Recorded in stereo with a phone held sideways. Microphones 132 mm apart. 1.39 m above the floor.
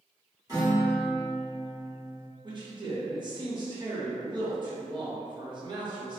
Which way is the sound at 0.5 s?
30° right (ahead or behind).